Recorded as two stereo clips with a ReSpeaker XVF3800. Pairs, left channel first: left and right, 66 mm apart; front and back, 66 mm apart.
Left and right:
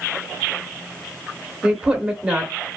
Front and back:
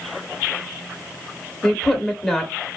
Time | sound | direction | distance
1.6 | a woman speaking | 65° right | 0.8 m